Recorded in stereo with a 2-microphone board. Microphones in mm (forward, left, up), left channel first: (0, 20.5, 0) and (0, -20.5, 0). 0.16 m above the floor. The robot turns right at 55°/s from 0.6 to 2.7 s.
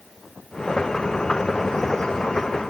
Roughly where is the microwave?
I don't hear a microwave.